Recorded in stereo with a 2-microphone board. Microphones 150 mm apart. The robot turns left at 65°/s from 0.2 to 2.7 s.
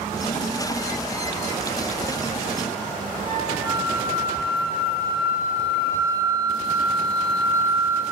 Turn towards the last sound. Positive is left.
turn(degrees=-30)  # may be behind; listen again after turning